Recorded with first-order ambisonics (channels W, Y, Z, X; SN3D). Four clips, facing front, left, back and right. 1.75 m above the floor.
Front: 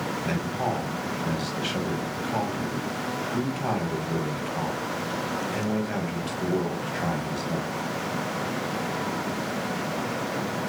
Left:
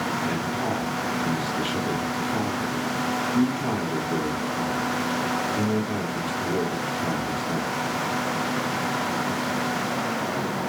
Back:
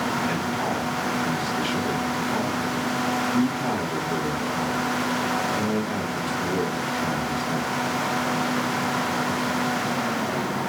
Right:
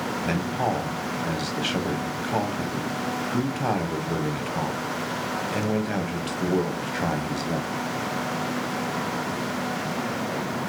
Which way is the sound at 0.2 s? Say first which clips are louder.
Right 1 dB, back 3 dB; 80° right.